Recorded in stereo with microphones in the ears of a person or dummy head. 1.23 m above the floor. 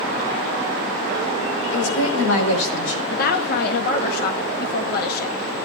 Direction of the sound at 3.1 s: 65° left (ahead or behind).